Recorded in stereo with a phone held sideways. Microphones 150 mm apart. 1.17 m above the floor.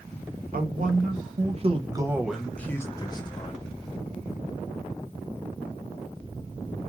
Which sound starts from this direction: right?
A man speaking, at 0.5 s.